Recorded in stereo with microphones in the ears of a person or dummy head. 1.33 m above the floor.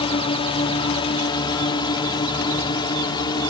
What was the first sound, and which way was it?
A drone, 30° left (ahead or behind).